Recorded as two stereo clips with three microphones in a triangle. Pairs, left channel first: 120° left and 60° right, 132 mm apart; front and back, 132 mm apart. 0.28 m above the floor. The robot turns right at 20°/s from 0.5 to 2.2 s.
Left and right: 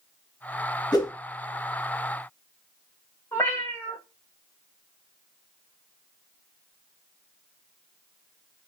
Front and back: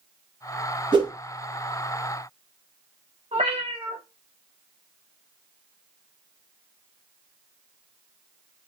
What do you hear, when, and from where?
0.9 s a whoosh: 155° left, 0.8 m; by 1.1 s 160° left, 0.8 m
3.3 s a cat meowing: 175° right, 0.9 m